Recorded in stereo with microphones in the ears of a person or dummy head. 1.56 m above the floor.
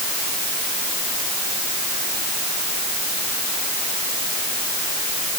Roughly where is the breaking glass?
I don't hear breaking glass.